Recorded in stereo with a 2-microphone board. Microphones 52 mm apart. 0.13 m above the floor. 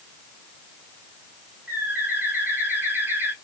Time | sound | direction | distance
1.7 | a bird | 40° right (ahead or behind) | 3 m